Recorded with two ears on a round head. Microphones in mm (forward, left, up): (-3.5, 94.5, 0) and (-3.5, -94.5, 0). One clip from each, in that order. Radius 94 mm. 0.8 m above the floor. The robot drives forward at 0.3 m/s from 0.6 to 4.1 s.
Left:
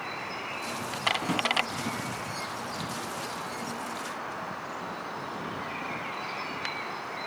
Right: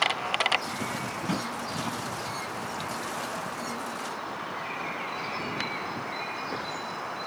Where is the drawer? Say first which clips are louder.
Left 3 dB; 20° left (ahead or behind), 2.5 m.